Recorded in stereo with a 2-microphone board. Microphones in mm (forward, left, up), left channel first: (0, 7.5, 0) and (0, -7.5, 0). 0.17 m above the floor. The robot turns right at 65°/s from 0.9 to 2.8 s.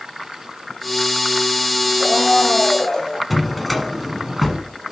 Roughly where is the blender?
Ahead.